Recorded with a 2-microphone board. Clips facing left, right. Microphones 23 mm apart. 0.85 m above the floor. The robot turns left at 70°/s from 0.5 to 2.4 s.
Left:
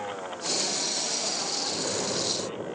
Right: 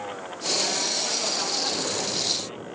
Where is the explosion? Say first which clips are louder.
Right 2 dB; 165° right, 2.5 m; by 2.8 s 145° left, 2.5 m.